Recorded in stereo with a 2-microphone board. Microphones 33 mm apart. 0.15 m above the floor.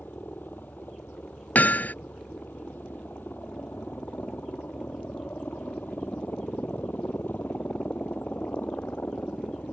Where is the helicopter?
70° left (ahead or behind); by 9.7 s 65° left (ahead or behind).